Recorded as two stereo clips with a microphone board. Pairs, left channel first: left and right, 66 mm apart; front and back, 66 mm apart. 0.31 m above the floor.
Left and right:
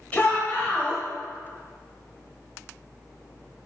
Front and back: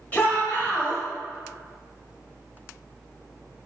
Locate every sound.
0.1 s a shout: 40° left, 1.3 m